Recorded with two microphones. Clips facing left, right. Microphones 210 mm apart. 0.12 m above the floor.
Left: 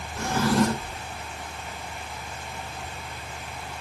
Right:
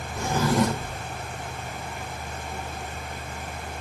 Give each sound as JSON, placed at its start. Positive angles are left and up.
{"t": 0.2, "sound": "a drawer", "side_deg": -15, "distance_m": 2.5}